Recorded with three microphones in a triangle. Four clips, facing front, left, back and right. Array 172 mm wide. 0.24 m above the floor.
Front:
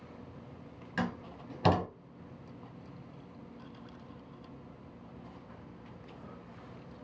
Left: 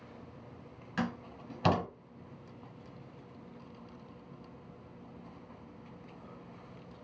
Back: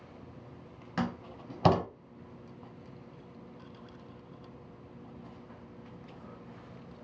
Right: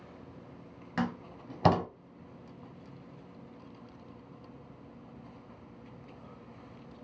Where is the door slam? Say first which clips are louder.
Right 2 dB, back 1 dB; 130° right, 0.9 m.